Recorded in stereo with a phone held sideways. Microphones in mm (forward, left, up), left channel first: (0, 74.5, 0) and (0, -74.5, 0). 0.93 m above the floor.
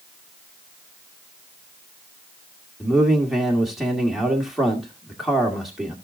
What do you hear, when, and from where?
2.8 s a man speaking: centre (ahead or behind), 2 m